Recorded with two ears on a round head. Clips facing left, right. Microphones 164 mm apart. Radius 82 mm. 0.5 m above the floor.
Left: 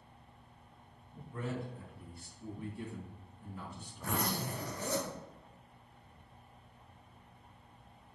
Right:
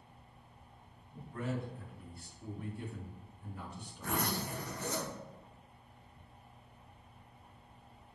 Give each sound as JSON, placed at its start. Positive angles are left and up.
{"t": 1.3, "sound": "a man speaking", "side_deg": 80, "distance_m": 3.5}
{"t": 4.0, "sound": "a zipper", "side_deg": 70, "distance_m": 3.0}